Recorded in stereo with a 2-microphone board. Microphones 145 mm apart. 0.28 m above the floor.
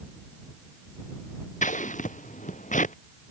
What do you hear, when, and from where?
1.6 s scissors: 60° left (ahead or behind)